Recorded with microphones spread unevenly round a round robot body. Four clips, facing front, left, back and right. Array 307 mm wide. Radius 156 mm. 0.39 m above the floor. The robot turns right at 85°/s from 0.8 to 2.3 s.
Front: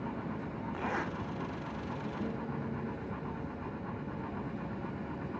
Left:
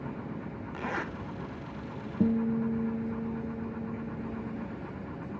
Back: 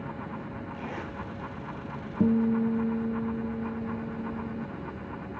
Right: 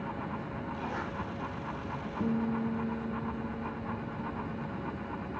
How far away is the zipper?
About 1.5 m.